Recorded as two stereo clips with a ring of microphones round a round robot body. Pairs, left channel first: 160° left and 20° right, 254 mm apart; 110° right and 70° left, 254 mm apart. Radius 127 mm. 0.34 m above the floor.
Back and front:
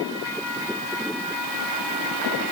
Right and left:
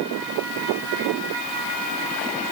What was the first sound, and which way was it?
Only background noise.